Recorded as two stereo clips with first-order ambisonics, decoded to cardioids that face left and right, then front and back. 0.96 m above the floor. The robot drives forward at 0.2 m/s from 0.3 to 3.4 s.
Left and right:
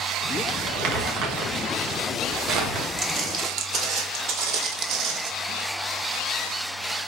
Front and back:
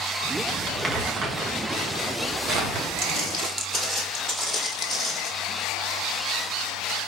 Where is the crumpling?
100° right, 1.2 m; by 2.9 s 125° right, 1.4 m.